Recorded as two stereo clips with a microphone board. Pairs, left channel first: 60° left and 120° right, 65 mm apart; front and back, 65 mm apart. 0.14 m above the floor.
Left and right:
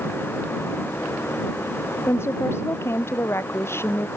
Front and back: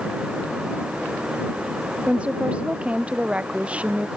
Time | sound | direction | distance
2.1 | a woman speaking | 110° left | ?